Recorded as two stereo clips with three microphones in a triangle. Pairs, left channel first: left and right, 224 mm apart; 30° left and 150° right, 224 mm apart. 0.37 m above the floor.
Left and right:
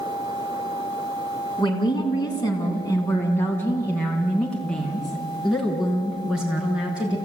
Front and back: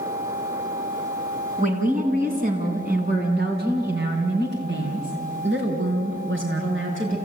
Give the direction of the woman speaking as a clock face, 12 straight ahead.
7 o'clock.